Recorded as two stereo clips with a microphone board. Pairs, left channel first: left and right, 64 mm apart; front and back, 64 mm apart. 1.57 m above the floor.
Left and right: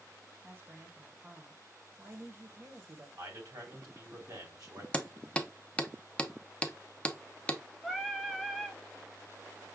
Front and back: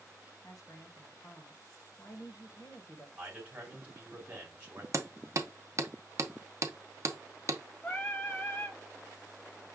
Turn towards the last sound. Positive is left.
turn(degrees=5)